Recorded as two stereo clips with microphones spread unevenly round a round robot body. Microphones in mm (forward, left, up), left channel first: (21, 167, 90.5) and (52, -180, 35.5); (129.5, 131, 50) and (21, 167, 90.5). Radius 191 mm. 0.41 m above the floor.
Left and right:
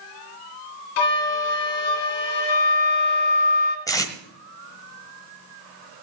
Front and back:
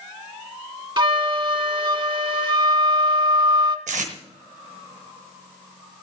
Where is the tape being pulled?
Straight behind, 1.2 m.